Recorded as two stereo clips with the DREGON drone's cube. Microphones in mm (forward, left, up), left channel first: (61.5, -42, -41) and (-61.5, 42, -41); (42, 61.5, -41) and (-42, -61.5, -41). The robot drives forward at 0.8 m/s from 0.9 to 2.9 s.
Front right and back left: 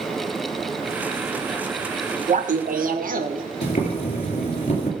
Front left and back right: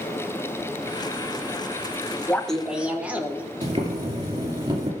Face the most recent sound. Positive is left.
turn(degrees=-75)